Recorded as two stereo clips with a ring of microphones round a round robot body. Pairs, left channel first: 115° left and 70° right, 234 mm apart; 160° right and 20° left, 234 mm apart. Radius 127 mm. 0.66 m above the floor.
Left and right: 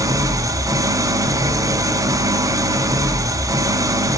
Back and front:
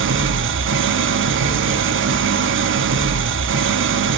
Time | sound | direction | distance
0.0 | an engine running | 5° left | 0.9 m